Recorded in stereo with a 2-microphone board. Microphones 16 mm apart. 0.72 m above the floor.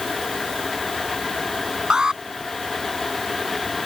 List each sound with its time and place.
1.9 s an alarm: 50° right (ahead or behind)